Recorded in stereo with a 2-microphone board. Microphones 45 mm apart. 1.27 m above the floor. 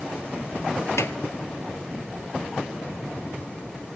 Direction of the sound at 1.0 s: 85° left.